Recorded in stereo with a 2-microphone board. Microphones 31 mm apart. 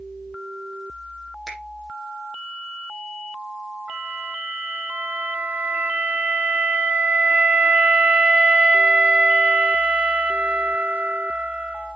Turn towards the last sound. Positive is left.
turn(degrees=-45)  # may be behind; listen again after turning